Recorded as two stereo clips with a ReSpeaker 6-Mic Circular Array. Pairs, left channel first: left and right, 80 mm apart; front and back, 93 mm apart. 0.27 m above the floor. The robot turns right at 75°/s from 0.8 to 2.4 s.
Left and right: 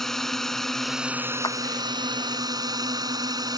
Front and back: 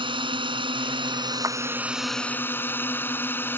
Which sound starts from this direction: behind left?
A clap, at 1.4 s.